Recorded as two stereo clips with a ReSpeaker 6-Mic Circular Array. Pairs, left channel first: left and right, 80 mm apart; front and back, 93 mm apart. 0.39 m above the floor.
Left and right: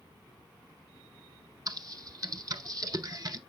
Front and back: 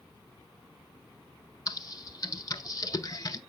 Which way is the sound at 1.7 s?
50° right.